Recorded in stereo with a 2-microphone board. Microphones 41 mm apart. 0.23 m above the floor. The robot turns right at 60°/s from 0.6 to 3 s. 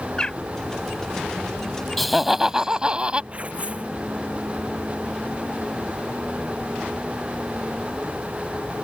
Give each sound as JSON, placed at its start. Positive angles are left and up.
{"t": 0.2, "sound": "a bird", "side_deg": 20}
{"t": 2.0, "sound": "laughter", "azimuth_deg": 170}
{"t": 3.3, "sound": "tearing paper", "side_deg": -30}